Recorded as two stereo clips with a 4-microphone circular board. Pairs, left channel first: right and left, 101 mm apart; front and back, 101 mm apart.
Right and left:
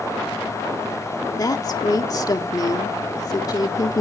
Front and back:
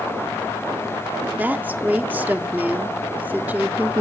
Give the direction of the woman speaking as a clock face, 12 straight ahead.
4 o'clock.